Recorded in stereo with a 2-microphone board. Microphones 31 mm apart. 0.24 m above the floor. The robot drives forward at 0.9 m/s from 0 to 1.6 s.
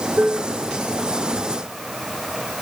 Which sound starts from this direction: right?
Dishes clattering, at 0.2 s.